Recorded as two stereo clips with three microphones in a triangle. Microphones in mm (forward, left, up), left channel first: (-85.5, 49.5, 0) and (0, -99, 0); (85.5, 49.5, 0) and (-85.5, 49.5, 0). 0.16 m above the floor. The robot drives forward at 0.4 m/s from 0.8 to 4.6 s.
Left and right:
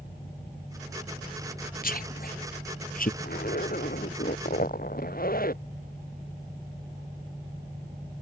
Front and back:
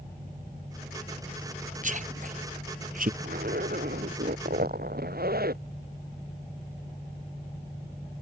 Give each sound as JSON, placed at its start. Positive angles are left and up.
{"t": 1.8, "sound": "a man speaking", "azimuth_deg": 145}
{"t": 3.2, "sound": "a zipper", "azimuth_deg": 150}